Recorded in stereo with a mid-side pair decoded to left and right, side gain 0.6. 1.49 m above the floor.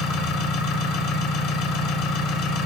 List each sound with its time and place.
0.0 s an engine running: 60° left, 1.9 m